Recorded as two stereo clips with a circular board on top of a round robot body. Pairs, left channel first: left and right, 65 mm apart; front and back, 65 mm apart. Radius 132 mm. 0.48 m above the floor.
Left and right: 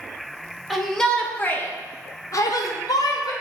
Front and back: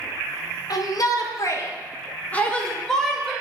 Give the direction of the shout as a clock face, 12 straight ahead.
12 o'clock.